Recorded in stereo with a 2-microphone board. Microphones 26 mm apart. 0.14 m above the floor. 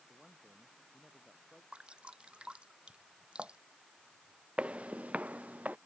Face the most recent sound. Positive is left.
turn(degrees=-80)